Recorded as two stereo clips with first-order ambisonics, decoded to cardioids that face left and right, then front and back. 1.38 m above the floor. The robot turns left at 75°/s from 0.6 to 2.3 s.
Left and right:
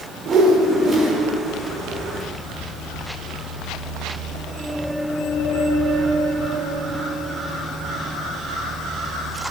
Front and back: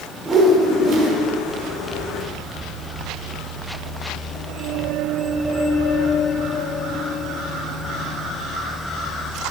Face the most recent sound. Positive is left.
turn(degrees=110)